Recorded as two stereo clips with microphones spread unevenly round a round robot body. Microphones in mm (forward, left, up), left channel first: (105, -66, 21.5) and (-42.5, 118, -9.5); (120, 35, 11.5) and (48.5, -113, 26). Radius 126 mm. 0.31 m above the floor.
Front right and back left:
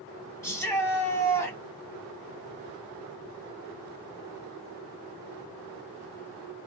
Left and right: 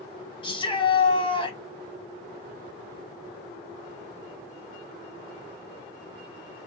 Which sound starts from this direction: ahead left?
A shout, at 0.4 s.